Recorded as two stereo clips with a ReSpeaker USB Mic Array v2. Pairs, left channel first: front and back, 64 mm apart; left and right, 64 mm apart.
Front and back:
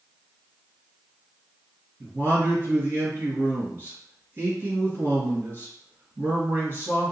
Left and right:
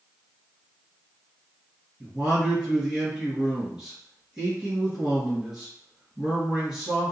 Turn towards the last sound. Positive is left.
turn(degrees=-165)